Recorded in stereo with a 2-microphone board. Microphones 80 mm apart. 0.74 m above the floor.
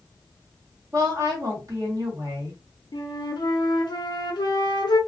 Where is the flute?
65° left (ahead or behind), 0.6 m.